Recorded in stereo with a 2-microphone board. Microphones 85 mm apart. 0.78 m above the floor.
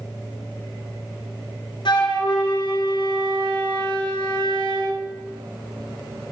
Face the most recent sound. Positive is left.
turn(degrees=70)  # may be behind; listen again after turning